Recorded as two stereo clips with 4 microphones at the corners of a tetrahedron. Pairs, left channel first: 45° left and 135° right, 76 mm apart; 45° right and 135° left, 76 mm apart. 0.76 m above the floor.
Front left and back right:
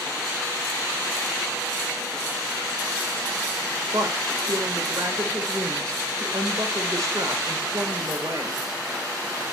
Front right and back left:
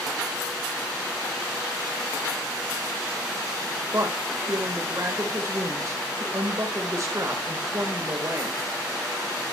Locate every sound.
3.9 s a woman speaking: 175° right, 3.5 m